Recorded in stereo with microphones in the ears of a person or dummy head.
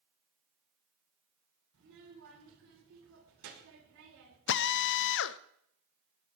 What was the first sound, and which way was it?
A child speaking, 80° right.